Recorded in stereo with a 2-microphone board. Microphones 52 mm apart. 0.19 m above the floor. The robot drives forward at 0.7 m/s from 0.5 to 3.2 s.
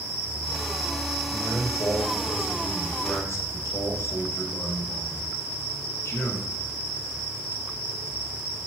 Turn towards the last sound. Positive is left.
turn(degrees=65)  # may be behind; listen again after turning